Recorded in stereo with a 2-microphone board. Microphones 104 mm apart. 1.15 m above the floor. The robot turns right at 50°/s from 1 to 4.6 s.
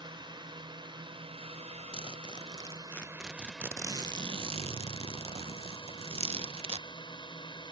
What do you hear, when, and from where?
0.0 s a drone: 130° right; by 7.7 s 50° left
1.9 s a zipper: 115° left; by 6.9 s 110° right